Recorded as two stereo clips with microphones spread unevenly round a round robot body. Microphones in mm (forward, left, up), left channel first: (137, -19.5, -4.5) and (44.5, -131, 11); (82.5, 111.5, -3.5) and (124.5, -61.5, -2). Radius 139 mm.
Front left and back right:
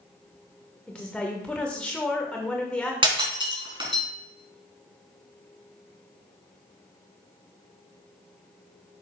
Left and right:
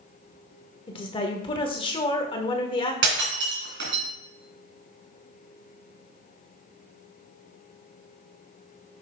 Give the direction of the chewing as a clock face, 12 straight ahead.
I don't hear chewing.